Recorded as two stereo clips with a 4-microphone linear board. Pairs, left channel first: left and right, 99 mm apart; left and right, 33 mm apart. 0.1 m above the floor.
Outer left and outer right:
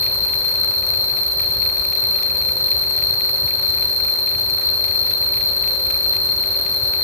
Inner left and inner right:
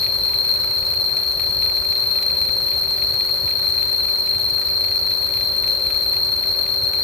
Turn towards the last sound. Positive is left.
turn(degrees=20)  # may be behind; listen again after turning